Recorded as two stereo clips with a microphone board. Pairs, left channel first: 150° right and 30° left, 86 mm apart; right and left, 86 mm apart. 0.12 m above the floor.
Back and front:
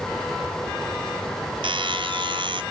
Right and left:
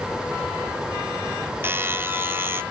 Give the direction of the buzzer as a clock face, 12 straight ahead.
11 o'clock.